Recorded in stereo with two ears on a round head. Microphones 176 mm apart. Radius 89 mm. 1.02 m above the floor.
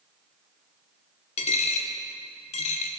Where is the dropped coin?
35° left (ahead or behind), 0.7 m.